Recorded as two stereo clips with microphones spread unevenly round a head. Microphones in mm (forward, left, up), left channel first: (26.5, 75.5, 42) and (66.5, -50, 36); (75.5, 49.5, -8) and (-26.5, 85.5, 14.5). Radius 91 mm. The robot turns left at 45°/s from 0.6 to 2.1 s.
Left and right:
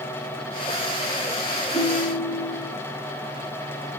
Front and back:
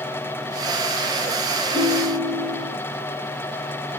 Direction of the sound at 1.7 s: 100° left.